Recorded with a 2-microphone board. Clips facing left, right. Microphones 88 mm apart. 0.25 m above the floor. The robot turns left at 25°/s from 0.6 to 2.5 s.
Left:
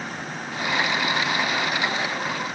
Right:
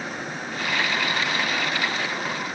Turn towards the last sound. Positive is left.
No sound to turn to.